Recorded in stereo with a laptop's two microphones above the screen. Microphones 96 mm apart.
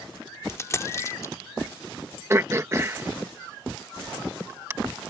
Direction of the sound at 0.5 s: 30° left (ahead or behind).